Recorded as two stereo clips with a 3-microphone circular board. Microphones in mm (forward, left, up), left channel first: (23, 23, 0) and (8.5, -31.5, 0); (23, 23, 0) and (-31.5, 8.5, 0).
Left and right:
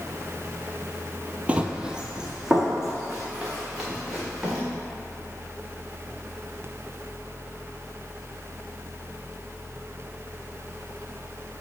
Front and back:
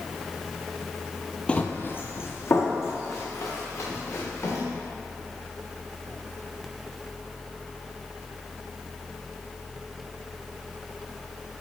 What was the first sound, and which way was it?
Running footsteps, 45° right.